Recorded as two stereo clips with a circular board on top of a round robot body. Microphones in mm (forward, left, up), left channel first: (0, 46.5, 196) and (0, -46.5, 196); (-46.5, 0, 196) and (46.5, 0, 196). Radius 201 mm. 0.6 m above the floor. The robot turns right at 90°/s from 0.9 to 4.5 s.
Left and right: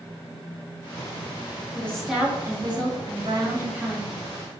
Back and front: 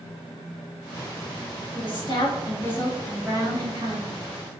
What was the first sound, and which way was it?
A woman speaking, 155° left.